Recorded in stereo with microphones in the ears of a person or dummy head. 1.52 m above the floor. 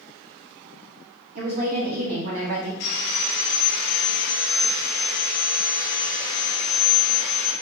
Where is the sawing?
55° left (ahead or behind), 1.0 m.